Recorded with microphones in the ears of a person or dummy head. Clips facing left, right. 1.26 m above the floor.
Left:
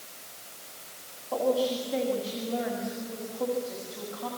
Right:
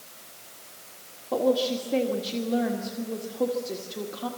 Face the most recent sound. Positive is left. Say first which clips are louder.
# right 2 dB
turn(degrees=-40)  # may be behind; listen again after turning